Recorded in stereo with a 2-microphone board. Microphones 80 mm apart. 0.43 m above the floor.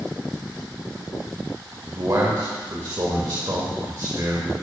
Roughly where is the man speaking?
Right.